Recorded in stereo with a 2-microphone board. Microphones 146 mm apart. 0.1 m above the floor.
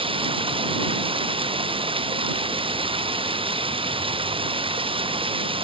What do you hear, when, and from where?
0.0 s running water: 35° right (ahead or behind)